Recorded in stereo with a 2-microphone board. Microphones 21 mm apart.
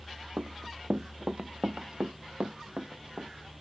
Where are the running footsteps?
65° right (ahead or behind); by 3.3 s 60° right (ahead or behind).